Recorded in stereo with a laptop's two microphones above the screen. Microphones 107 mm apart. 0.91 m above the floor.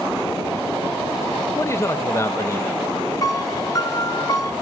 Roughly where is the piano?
Left.